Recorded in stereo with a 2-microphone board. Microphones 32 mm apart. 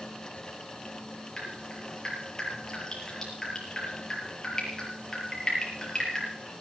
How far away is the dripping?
About 6.5 m.